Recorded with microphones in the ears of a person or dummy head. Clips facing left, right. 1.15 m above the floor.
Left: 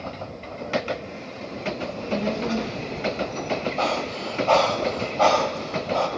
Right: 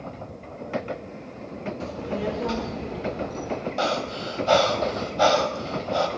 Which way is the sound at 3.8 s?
15° right (ahead or behind).